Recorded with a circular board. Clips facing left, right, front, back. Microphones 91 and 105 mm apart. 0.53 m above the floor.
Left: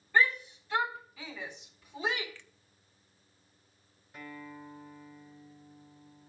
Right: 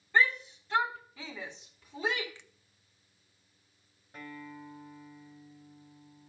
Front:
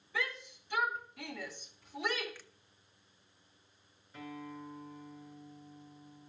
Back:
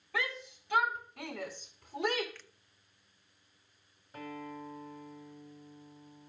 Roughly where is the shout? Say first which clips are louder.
Even, back 2 dB; behind.